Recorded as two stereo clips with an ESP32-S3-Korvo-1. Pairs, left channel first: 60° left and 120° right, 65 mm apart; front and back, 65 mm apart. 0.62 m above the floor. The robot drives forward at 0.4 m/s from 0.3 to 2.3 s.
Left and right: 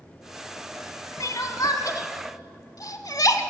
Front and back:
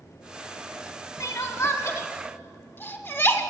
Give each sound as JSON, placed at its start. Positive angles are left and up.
{"t": 1.2, "sound": "crying", "azimuth_deg": 30, "distance_m": 1.1}